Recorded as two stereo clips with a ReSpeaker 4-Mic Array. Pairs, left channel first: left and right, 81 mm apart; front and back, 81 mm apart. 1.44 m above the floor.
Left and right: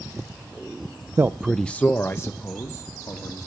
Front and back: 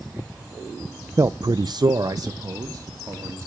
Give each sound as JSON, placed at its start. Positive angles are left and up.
{"t": 1.2, "sound": "a man speaking", "azimuth_deg": -135, "distance_m": 0.5}